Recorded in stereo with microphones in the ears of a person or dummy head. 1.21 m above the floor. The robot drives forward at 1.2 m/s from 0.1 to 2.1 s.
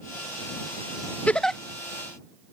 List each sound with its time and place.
1.3 s a giggle: 10° left (ahead or behind); by 1.6 s 5° left (ahead or behind)